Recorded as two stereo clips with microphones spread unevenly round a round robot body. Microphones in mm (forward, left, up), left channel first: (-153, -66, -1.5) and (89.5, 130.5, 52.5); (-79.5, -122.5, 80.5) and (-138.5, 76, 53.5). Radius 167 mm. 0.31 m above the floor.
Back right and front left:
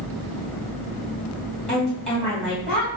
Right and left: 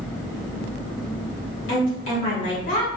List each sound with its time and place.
1.7 s a woman speaking: 60° right, 1.7 m